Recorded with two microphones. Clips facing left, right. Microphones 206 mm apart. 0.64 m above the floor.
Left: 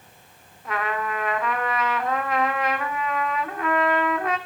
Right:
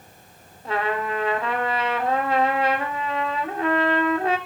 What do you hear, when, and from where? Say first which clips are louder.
0.7 s a trumpet: right 3 dB; 30° right (ahead or behind), 2 m